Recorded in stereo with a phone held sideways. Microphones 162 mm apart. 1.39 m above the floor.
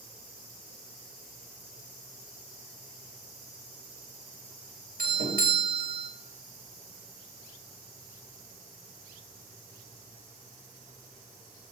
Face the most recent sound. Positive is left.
turn(degrees=-60)  # may be behind; listen again after turning